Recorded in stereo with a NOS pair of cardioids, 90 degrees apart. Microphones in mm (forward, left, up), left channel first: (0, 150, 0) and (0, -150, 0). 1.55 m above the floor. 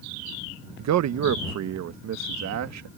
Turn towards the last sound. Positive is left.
turn(degrees=-60)